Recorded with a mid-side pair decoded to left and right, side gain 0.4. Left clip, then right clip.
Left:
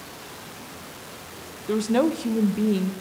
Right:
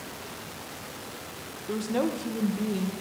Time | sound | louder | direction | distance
1.7 | a woman speaking | left 6 dB | 50° left | 0.7 m